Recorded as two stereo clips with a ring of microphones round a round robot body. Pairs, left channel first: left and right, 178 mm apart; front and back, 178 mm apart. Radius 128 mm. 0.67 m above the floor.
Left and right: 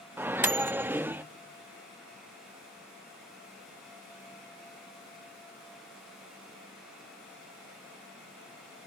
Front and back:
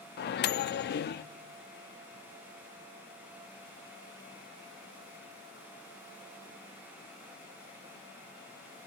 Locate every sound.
0.2 s a microwave: 10° right, 0.5 m